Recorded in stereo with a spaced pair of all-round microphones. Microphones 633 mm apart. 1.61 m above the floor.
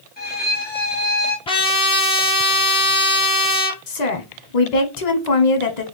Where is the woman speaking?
80° left, 1.0 m.